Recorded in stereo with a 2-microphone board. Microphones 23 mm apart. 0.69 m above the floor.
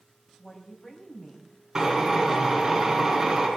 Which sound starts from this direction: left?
A woman speaking, at 0.4 s.